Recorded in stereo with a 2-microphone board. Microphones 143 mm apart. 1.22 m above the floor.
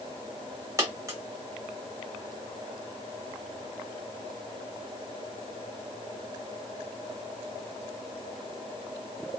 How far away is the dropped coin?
About 1.1 m.